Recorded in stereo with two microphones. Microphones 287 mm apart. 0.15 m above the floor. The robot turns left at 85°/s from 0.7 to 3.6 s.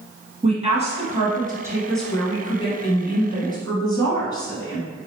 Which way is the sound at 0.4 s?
25° right (ahead or behind).